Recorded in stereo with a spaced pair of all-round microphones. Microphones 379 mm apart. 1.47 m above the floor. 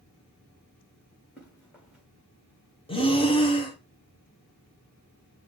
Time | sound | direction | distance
1.4 | running footsteps | centre (ahead or behind) | 5.5 m
2.9 | breathing | 15° left (ahead or behind) | 1.0 m